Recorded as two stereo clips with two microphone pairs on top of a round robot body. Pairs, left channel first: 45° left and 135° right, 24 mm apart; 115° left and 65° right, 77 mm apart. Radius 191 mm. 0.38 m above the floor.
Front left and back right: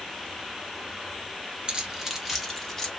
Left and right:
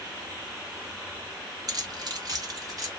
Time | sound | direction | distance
1.7 | keys jangling | 85° right | 1.1 m